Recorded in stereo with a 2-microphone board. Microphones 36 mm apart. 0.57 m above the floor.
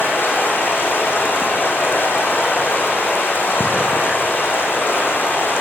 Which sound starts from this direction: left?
Running water, at 0.0 s.